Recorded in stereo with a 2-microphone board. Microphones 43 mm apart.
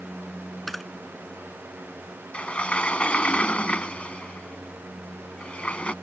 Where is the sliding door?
25° left (ahead or behind).